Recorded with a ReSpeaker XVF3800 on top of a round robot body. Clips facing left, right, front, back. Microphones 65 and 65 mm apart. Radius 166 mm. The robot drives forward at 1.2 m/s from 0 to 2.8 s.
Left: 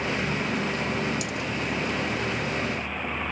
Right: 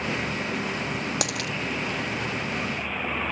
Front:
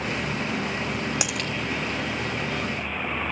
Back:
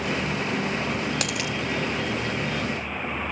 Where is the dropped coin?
80° right; by 1.5 s 105° right.